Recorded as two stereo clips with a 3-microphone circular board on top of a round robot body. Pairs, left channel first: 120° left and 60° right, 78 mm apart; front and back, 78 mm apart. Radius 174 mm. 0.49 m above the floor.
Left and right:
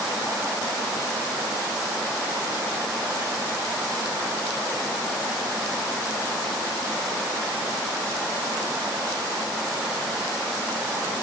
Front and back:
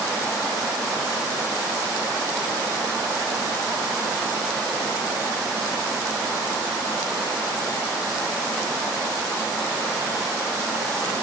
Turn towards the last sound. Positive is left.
No sound to turn to.